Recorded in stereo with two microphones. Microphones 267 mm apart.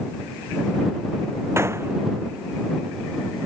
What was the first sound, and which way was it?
A gunshot, 10° right (ahead or behind).